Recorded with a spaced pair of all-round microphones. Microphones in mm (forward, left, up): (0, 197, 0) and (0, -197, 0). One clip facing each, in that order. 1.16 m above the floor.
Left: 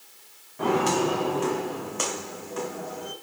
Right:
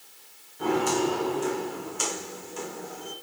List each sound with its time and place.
0.6 s footsteps: 75° left (ahead or behind), 5 m; by 3.1 s 70° left (ahead or behind), 3 m